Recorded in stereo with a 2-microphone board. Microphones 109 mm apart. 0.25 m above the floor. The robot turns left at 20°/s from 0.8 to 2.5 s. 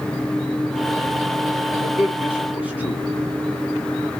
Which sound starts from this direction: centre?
A man speaking, at 1.7 s.